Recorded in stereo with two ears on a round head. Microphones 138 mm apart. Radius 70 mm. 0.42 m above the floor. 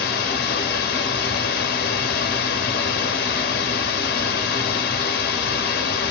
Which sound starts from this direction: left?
Running water, at 0.0 s.